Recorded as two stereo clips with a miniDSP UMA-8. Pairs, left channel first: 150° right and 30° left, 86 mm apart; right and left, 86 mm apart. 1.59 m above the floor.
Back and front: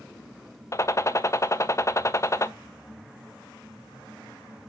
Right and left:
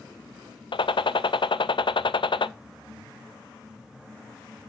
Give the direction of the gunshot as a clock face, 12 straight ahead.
3 o'clock.